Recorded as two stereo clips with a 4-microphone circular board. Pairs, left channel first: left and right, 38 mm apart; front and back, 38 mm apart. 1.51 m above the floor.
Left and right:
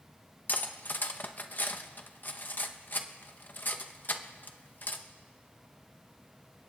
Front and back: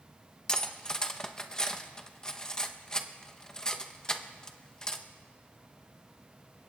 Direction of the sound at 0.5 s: 70° left.